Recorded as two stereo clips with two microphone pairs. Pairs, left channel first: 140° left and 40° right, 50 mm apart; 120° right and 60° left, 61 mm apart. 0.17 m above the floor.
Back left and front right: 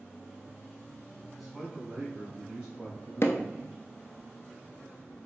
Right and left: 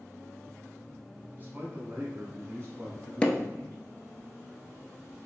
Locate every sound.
1.4 s a man speaking: 55° left, 1.2 m; by 3.8 s 25° left, 2.5 m
3.2 s hammering: 170° left, 0.6 m